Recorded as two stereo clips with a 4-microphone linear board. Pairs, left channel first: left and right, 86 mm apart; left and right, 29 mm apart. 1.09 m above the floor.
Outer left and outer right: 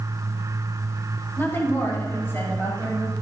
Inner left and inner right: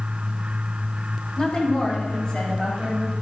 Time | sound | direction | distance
1.4 | a woman speaking | 30° left (ahead or behind) | 3.5 m